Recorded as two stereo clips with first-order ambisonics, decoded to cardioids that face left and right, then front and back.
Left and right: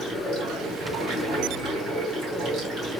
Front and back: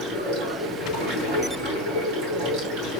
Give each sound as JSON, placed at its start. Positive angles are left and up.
{"t": 0.0, "sound": "running water", "azimuth_deg": -140, "distance_m": 3.0}